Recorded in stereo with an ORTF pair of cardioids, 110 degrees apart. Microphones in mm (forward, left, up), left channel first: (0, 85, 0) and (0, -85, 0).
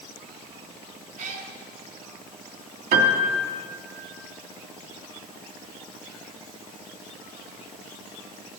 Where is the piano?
65° right, 2.5 m.